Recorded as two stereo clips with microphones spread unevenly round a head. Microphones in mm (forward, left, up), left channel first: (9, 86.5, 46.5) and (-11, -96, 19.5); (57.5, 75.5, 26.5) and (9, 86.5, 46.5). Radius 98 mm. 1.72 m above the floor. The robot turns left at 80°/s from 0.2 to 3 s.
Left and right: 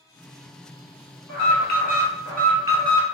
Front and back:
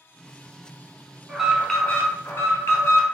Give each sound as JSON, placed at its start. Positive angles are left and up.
{"t": 1.3, "sound": "an alarm", "azimuth_deg": 85, "distance_m": 1.5}